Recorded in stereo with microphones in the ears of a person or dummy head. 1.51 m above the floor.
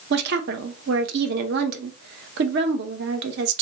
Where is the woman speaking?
65° right (ahead or behind), 0.6 m.